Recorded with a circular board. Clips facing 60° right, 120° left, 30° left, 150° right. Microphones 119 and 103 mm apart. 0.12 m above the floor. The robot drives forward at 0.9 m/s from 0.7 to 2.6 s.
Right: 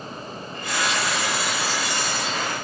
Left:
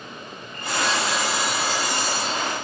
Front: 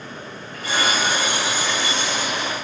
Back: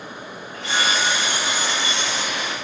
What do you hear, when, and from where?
0.5 s sawing: 145° left, 5 m; by 2.5 s 155° left, 6.5 m